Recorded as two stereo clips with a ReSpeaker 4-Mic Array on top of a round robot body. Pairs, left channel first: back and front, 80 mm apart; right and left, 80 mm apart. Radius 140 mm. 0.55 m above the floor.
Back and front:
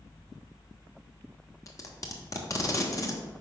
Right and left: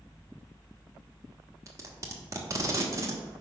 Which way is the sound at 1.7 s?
135° left.